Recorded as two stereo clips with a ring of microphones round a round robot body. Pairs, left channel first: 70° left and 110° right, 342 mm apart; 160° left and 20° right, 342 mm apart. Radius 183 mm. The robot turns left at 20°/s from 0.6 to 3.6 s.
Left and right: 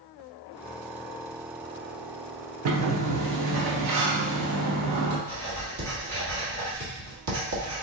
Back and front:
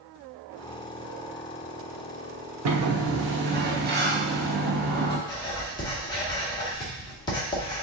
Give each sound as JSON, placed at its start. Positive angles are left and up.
{"t": 2.6, "sound": "a sliding door", "azimuth_deg": -65, "distance_m": 0.8}
{"t": 5.3, "sound": "writing", "azimuth_deg": -130, "distance_m": 1.6}